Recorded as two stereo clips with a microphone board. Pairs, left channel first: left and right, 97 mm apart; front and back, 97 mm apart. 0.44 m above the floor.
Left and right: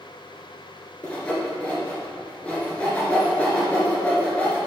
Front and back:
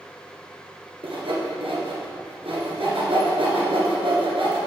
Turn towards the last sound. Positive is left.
turn(degrees=170)